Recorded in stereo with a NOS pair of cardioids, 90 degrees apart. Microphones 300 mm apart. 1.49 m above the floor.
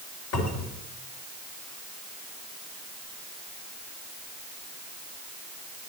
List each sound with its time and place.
0.3 s a cupboard door: 60° left, 4 m